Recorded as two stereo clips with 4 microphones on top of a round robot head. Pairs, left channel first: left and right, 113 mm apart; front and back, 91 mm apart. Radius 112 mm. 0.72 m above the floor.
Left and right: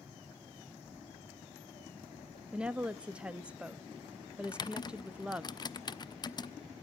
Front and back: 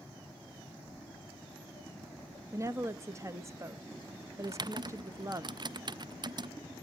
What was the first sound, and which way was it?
Footsteps, 80° left.